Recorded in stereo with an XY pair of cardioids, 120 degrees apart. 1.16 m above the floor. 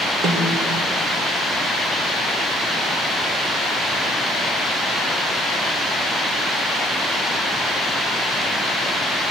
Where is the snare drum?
55° right, 2 m.